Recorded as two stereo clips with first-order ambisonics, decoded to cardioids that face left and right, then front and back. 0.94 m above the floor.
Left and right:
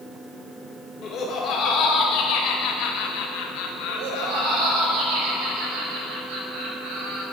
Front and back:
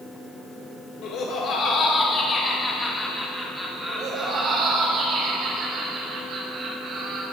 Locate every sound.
1.0 s laughter: 35° left, 1.3 m; by 4.9 s 100° left, 2.5 m
3.9 s laughter: 120° right, 4.5 m